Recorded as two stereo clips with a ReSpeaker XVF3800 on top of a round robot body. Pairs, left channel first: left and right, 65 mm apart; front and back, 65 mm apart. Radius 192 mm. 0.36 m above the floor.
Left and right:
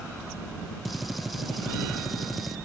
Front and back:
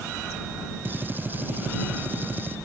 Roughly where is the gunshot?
Behind.